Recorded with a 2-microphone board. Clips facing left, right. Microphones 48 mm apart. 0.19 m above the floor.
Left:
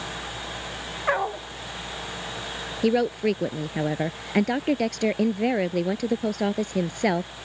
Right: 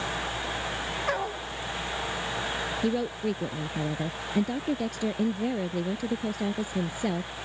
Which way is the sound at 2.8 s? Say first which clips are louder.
Left 8 dB; 70° left (ahead or behind).